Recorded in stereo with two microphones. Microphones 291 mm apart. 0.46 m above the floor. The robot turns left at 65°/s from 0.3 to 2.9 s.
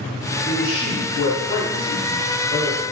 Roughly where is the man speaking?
Behind left.